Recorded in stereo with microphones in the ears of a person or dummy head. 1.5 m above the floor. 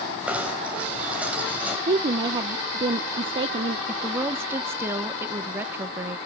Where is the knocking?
10° right (ahead or behind), 6 m.